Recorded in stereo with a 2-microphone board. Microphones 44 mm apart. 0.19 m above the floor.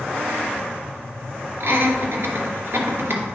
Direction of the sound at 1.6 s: 60° right (ahead or behind).